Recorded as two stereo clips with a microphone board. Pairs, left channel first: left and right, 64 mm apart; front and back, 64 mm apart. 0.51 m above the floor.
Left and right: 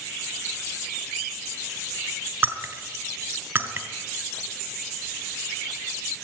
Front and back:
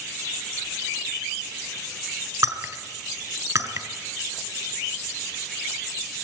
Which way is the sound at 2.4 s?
150° right.